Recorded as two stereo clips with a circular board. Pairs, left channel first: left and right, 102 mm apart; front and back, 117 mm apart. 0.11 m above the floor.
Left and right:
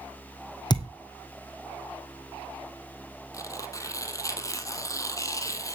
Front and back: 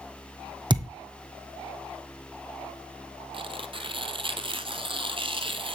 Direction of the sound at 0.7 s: 130° left.